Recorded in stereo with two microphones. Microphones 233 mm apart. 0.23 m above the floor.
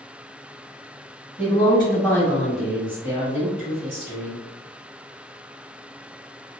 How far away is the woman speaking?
About 1.6 m.